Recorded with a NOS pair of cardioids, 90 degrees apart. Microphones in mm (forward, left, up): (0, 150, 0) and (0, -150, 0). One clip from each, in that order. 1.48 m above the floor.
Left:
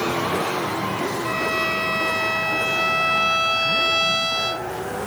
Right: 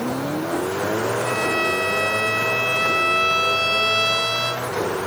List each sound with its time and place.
1.2 s a violin: straight ahead